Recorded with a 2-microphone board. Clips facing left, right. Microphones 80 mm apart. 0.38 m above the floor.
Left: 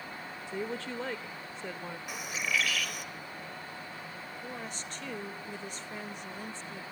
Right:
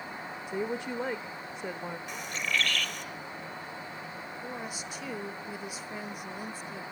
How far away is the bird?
About 1.4 m.